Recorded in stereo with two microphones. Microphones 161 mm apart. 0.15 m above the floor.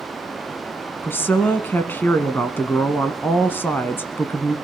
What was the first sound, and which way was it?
A woman speaking, 15° left (ahead or behind).